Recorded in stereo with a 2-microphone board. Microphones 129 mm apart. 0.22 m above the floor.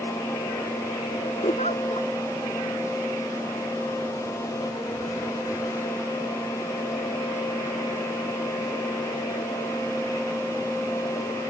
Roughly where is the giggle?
Left.